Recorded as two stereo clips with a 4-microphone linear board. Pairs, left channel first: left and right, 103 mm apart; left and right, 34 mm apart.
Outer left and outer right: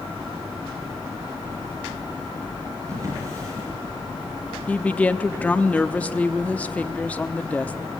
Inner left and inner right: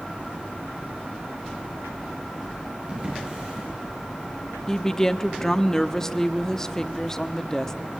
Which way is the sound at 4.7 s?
15° left (ahead or behind).